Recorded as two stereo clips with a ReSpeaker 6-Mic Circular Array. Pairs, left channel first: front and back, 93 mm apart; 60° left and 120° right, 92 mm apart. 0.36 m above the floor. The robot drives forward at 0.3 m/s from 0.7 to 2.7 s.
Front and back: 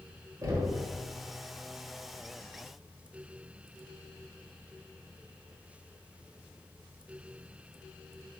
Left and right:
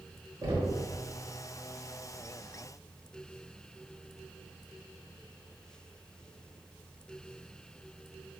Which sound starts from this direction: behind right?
Knocking, at 0.4 s.